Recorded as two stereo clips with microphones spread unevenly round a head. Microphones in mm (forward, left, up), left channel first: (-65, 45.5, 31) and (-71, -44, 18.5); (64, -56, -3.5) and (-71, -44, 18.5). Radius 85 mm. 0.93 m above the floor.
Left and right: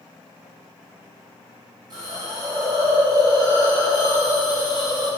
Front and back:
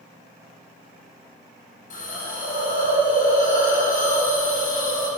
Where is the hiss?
30° right, 5.5 m.